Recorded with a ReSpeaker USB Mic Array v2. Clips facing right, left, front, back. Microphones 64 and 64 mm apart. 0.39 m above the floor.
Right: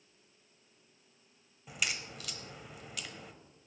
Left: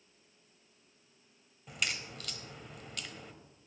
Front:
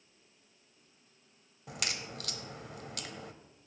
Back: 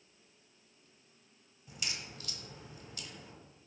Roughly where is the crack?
Ahead.